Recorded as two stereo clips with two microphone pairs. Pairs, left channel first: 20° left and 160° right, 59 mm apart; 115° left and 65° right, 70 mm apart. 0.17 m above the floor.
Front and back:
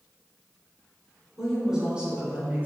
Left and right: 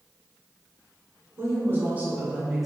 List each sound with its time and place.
1.4 s a woman speaking: 80° right, 1.4 m; by 2.7 s 150° right, 1.2 m